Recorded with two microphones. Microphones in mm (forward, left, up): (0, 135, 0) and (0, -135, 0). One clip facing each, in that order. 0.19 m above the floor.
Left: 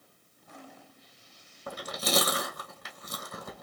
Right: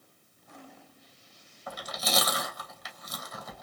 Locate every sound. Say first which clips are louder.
1.7 s chewing: left 3 dB; 55° left (ahead or behind), 1.8 m